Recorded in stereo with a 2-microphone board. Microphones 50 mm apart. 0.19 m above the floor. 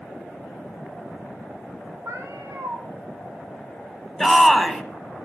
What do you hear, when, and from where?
2.0 s a cat meowing: 75° right (ahead or behind), 2.5 m
4.2 s a shout: centre (ahead or behind), 1.2 m